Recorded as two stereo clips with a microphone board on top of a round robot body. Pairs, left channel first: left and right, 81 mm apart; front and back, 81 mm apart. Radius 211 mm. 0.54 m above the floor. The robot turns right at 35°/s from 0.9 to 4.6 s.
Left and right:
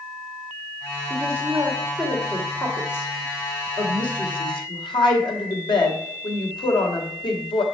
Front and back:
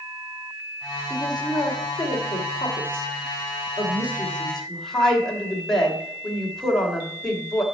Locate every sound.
1.1 s a woman speaking: 35° right, 2.5 m; by 7.6 s 85° left, 2.5 m